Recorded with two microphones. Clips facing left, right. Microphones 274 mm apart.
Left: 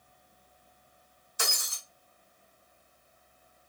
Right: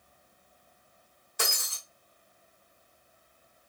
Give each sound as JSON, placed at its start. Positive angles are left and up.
{"t": 1.4, "sound": "breaking glass", "side_deg": -75, "distance_m": 1.7}